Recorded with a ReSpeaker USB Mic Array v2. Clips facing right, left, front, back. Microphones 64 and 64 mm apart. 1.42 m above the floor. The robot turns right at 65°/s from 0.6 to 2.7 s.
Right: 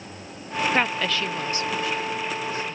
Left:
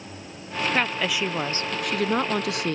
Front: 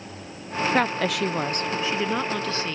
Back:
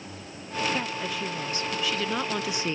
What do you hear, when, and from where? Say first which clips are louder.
0.7 s a woman speaking: even, front 8 dB; 15° right; by 2.7 s 115° left